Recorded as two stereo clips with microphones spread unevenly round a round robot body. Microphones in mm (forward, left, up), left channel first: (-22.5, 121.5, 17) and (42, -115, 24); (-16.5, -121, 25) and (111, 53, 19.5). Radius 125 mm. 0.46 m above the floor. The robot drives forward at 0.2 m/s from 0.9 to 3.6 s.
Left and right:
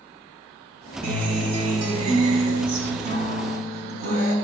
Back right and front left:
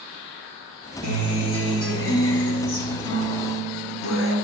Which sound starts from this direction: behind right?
A guitar, at 1.0 s.